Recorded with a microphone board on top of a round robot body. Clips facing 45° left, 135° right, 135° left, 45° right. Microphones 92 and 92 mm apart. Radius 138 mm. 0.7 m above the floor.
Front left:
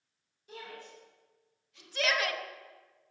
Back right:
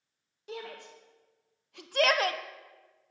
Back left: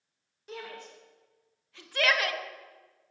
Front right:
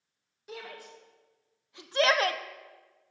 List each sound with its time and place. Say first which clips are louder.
0.5 s a shout: back right 5 dB, back left 1 dB; 130° right, 3 m; by 2.4 s 80° right, 0.8 m